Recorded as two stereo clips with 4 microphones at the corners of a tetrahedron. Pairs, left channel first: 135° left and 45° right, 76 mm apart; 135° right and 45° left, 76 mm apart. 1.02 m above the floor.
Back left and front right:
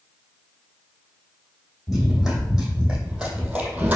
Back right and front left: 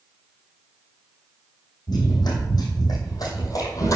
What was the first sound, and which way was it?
Running footsteps, 130° right.